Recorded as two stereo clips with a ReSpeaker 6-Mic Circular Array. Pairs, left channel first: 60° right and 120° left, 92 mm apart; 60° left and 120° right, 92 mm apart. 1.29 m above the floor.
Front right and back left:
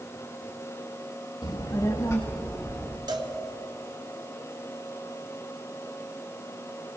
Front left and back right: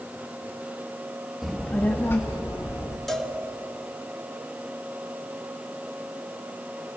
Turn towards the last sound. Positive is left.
turn(degrees=145)